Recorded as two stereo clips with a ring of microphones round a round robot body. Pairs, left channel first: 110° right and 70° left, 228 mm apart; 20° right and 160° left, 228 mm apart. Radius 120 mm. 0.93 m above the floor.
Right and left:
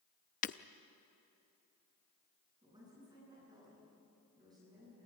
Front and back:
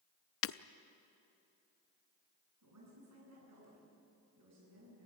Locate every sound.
0.4 s breaking glass: 55° right, 0.5 m
2.6 s a woman speaking: 140° left, 10 m